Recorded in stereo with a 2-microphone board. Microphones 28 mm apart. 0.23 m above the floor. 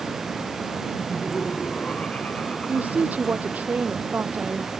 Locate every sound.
1.0 s laughter: 55° left (ahead or behind)
2.7 s a woman speaking: 80° right